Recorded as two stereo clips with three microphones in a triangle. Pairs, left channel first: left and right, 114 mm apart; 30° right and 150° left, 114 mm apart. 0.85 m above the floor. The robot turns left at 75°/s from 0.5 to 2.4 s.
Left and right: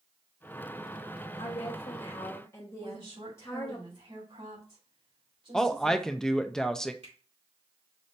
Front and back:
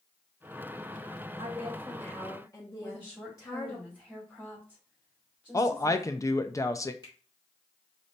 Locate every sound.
1.4 s a woman speaking: 105° left, 1.0 m; by 3.8 s 25° left, 1.0 m
2.8 s a woman speaking: 110° right, 2.5 m
5.5 s a woman speaking: 10° left, 0.5 m
7.0 s a finger snap: 80° right, 2.5 m